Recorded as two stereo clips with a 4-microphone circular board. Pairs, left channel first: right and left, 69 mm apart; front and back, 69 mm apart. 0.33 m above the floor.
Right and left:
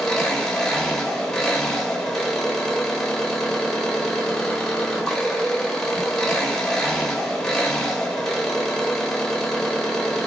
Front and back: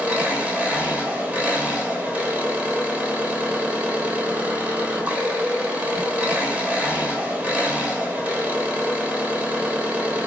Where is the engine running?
160° right, 1.0 m.